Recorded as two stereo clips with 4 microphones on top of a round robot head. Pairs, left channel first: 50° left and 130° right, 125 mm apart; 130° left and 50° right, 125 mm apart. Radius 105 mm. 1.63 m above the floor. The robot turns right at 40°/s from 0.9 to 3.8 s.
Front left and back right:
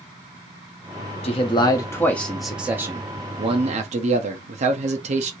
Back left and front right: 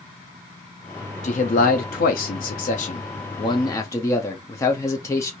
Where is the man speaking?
95° left, 0.6 m; by 5.3 s 165° right, 0.6 m.